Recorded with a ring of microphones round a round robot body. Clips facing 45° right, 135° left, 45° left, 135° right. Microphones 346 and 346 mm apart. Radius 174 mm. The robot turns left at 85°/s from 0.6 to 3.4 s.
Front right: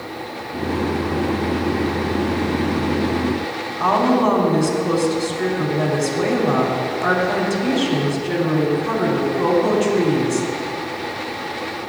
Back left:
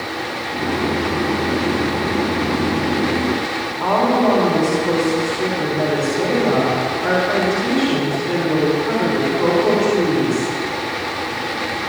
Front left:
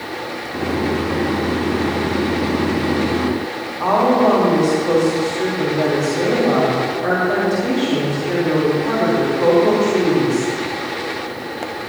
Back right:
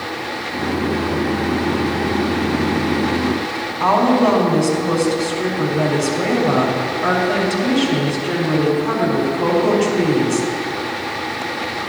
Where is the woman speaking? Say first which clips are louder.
Even, even; 90° right, 3.5 m.